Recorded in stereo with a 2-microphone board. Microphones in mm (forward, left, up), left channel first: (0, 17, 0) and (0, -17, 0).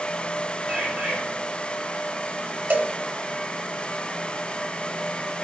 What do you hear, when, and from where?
0.7 s a bird: 65° right (ahead or behind), 8 m
2.7 s a cowbell: 85° right, 1.0 m